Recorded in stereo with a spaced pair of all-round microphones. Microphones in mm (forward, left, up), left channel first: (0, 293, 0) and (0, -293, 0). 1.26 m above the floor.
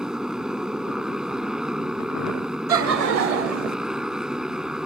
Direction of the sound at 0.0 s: Centre (ahead or behind).